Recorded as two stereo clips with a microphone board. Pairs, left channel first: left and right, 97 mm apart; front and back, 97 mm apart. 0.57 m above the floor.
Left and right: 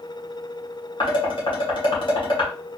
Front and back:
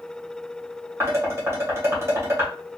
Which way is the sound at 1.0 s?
120° left.